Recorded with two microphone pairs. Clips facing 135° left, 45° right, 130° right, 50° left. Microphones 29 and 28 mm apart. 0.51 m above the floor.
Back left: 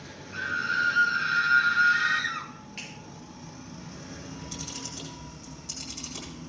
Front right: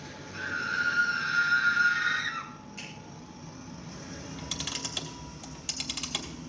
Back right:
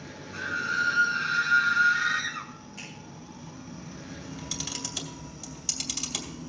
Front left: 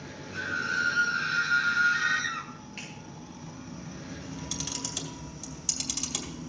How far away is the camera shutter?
About 3 m.